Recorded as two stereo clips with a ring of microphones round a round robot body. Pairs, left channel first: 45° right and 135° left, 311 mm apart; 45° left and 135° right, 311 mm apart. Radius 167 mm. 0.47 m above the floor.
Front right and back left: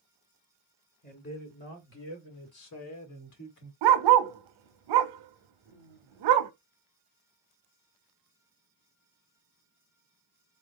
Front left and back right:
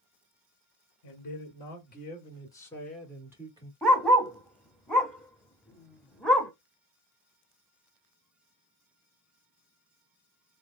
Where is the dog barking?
135° left, 0.6 m.